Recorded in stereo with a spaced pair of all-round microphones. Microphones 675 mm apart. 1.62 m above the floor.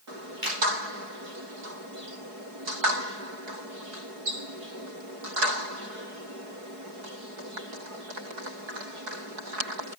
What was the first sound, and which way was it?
A finger snap, 40° right (ahead or behind).